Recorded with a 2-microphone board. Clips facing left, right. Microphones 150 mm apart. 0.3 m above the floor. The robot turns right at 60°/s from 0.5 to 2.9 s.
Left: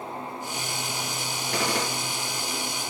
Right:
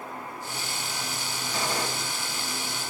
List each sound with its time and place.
1.5 s a gunshot: 75° left (ahead or behind), 2.5 m